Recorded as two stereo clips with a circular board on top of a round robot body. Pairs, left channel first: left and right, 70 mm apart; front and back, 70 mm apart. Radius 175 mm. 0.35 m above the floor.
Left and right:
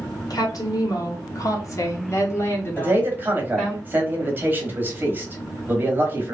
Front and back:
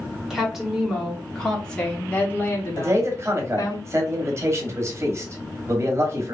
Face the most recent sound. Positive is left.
turn(degrees=-145)